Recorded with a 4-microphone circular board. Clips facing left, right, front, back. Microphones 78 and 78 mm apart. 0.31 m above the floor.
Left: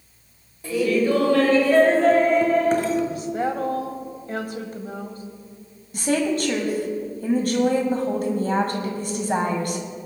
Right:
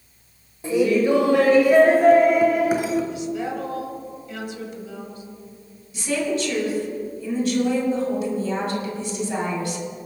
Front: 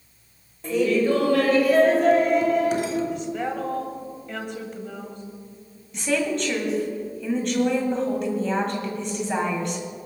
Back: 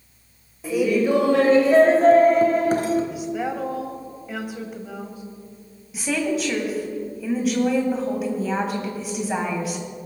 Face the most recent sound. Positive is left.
turn(degrees=95)